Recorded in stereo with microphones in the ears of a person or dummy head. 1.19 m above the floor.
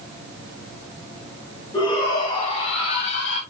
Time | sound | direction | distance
1.7 | a shout | 30° left (ahead or behind) | 4 m